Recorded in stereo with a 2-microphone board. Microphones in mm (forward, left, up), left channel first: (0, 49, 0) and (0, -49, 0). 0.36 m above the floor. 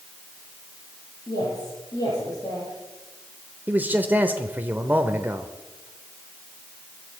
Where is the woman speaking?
35° left (ahead or behind), 8 m.